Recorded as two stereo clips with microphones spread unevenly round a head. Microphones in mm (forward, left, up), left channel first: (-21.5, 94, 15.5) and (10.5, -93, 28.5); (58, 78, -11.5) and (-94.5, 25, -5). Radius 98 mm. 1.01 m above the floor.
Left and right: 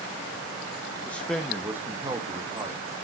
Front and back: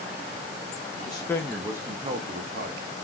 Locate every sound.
1.1 s a man speaking: 35° left, 0.6 m; by 3.0 s 145° right, 1.0 m